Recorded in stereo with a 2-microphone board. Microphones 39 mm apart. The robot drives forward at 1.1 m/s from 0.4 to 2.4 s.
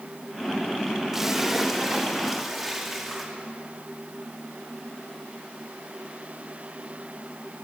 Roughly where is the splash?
Centre.